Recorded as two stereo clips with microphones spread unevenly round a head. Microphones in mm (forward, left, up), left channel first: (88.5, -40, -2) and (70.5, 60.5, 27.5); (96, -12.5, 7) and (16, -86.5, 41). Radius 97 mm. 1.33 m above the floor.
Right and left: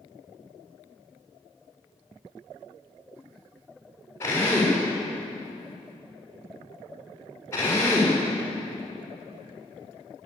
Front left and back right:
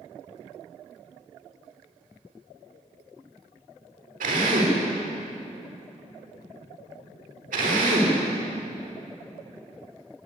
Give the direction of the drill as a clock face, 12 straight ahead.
5 o'clock.